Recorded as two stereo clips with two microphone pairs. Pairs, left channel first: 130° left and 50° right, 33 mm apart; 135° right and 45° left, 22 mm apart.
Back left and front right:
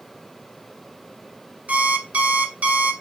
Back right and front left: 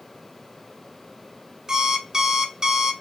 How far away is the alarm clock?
About 0.7 m.